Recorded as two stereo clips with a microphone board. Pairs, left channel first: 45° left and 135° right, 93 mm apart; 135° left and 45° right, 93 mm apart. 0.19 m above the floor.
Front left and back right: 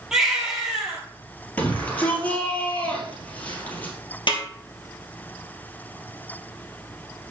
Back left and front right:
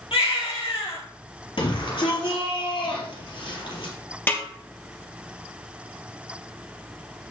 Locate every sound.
0.1 s a baby crying: 140° left, 2.5 m
1.6 s a shout: 115° left, 4 m
4.3 s a snare drum: 70° left, 2.5 m